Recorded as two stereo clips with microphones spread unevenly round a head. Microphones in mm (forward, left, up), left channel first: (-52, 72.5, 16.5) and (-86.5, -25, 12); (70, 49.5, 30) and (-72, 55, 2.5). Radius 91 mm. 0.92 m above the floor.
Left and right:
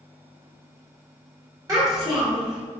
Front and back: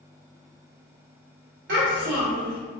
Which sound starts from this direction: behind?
A child speaking, at 1.7 s.